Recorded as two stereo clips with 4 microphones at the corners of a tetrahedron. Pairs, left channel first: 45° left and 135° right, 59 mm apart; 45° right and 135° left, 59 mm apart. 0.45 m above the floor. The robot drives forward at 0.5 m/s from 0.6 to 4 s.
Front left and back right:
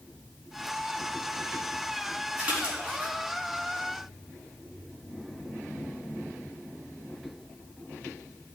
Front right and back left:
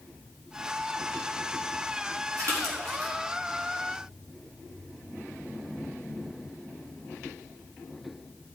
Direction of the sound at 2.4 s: 155° left.